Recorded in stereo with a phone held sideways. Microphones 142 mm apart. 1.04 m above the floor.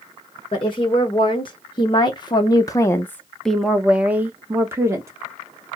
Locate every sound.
0.5 s a woman speaking: 35° left (ahead or behind), 1.4 m; by 5.1 s 20° right (ahead or behind), 1.2 m